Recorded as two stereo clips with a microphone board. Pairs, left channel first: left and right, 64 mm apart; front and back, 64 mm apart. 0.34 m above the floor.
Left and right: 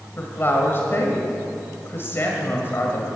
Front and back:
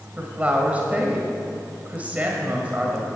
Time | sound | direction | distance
0.2 | a woman speaking | 125° left | 1.7 m